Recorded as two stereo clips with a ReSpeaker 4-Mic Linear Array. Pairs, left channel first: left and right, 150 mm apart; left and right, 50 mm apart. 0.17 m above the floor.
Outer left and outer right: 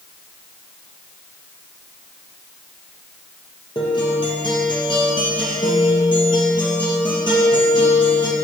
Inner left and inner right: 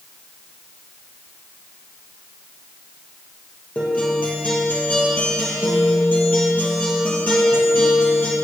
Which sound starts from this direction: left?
A guitar, at 3.8 s.